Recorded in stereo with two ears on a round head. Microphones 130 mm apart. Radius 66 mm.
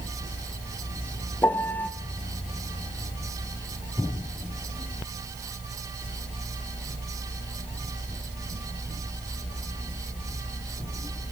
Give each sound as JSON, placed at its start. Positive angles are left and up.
{"t": 1.4, "sound": "a piano", "side_deg": 10, "distance_m": 0.7}